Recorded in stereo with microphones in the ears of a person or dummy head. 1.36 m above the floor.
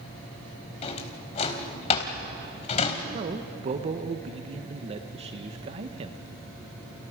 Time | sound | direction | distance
0.8 | a drawer | 40° left (ahead or behind) | 2.5 m
3.1 | a man speaking | 35° right (ahead or behind) | 1.0 m